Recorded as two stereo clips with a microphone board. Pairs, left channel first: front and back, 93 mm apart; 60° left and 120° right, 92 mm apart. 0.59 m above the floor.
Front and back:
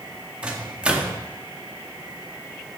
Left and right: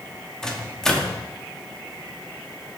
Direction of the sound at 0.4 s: 130° left.